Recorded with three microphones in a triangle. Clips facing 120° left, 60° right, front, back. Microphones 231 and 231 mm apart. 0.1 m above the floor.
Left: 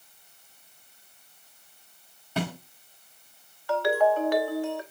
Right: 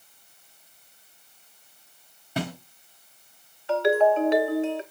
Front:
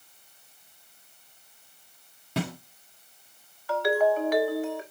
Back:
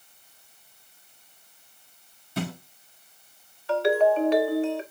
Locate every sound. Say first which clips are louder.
2.4 s a snare drum: even, even; 20° left, 5 m
3.7 s a ringtone: right 3 dB, back 3 dB; 125° right, 1.0 m